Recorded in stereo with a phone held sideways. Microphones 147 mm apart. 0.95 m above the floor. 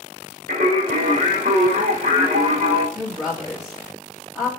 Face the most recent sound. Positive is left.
turn(degrees=-5)  # may be behind; listen again after turning